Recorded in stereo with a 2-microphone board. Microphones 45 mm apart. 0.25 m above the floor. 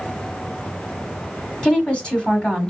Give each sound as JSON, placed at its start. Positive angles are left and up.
{"t": 1.6, "sound": "a woman speaking", "side_deg": 20, "distance_m": 1.5}